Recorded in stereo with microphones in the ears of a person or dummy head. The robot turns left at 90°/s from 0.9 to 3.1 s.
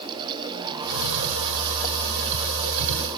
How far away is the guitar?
No guitar in this recording.